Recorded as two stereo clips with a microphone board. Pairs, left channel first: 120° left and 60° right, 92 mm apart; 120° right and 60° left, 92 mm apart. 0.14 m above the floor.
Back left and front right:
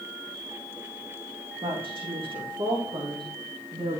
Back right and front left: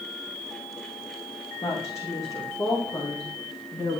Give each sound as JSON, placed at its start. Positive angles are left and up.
{"t": 1.6, "sound": "a woman speaking", "azimuth_deg": -65, "distance_m": 6.0}